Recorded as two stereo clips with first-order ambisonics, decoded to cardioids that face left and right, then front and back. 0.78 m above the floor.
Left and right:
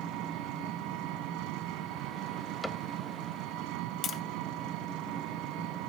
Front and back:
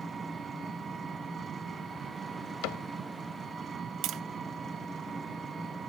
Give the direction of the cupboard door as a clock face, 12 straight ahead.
12 o'clock.